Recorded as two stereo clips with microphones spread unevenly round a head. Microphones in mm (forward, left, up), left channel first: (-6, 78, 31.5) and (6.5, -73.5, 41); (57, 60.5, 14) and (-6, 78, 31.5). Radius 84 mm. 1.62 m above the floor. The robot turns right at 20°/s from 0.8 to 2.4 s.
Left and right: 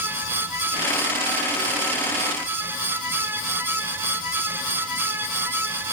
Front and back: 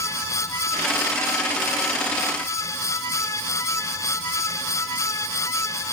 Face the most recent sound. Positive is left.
No sound to turn to.